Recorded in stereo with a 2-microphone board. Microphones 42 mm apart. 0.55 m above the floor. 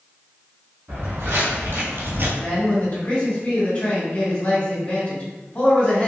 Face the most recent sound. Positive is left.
turn(degrees=40)  # may be behind; listen again after turning